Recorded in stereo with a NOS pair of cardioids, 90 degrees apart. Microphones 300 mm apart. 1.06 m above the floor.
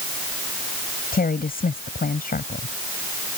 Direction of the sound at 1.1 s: 30° left.